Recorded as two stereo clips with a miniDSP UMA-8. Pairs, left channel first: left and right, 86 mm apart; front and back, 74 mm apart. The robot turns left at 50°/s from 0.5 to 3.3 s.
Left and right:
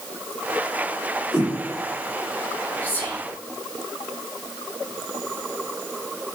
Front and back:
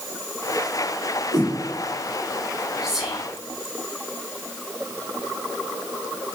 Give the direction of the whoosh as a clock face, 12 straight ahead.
1 o'clock.